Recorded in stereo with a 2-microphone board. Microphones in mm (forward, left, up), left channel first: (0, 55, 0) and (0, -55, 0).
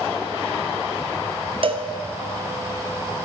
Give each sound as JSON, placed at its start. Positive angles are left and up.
{"t": 1.6, "sound": "a cowbell", "side_deg": -55, "distance_m": 0.6}